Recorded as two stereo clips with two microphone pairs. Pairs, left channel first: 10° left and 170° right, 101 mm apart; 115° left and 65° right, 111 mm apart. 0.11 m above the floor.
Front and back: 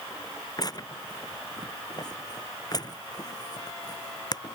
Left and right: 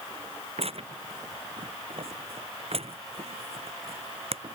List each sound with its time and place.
0.6 s tearing paper: 40° right